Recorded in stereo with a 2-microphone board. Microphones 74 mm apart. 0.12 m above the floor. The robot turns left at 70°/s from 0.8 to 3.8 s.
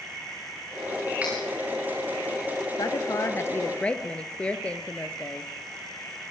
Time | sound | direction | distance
1.2 | cutlery clinking | 20° right (ahead or behind) | 7 m
2.8 | a woman speaking | 90° left | 1.9 m